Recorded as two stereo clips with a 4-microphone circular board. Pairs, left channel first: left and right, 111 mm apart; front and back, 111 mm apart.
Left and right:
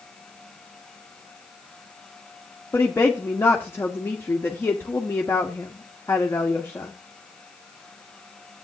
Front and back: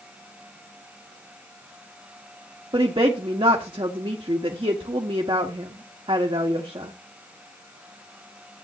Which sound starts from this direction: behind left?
A woman speaking, at 2.7 s.